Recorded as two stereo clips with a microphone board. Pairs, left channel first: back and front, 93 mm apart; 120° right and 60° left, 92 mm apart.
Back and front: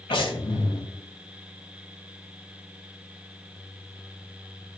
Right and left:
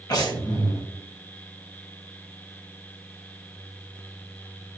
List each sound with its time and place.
0.1 s breathing: 165° right, 3 m